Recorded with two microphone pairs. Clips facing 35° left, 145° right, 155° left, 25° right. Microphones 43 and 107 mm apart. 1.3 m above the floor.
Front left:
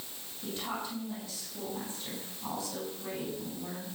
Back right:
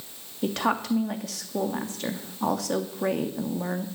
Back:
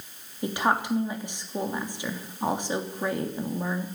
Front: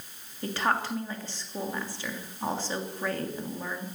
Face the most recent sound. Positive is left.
turn(degrees=-130)